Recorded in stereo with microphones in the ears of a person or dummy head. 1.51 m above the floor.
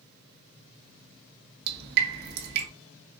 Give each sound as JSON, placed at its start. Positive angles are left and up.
{"t": 1.7, "sound": "dripping", "side_deg": -60, "distance_m": 1.7}